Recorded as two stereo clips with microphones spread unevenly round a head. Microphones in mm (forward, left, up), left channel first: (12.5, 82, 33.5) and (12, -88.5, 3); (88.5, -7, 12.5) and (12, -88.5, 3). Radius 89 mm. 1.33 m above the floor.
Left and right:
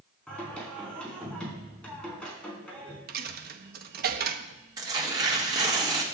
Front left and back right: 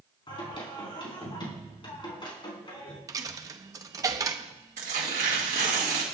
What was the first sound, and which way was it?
Singing, 5° left.